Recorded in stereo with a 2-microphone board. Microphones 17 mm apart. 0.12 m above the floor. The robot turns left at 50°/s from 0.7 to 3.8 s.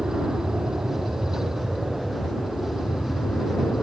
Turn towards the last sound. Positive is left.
turn(degrees=90)